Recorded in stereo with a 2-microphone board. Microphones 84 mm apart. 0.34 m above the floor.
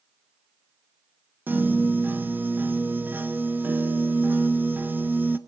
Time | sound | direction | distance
1.5 | a piano | 20° right (ahead or behind) | 0.7 m